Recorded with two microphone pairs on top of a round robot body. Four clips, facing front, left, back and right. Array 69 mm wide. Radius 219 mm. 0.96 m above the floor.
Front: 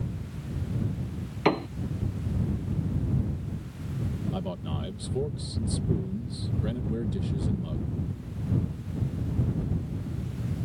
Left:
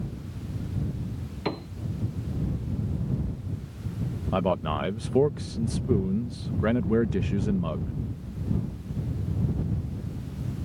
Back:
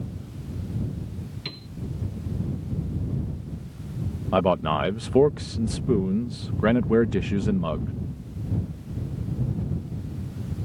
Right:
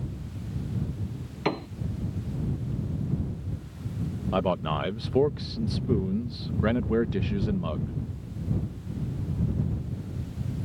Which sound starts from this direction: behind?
A man speaking, at 4.3 s.